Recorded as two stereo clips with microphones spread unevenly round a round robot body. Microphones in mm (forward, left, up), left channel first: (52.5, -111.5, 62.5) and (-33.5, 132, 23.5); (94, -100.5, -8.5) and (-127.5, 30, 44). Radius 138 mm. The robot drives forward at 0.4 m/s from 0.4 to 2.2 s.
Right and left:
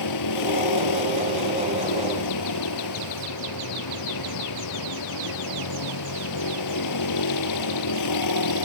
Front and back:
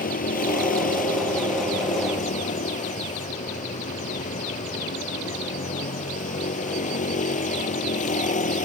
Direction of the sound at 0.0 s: 90° right.